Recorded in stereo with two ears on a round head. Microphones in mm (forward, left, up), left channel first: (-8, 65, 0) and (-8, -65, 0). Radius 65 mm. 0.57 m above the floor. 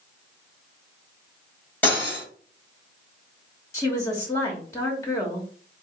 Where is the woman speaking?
25° left (ahead or behind), 1.1 m.